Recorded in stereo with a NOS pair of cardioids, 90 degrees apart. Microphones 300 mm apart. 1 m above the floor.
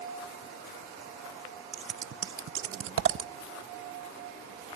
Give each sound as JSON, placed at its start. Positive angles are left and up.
{"t": 1.7, "sound": "scissors", "azimuth_deg": -45, "distance_m": 0.7}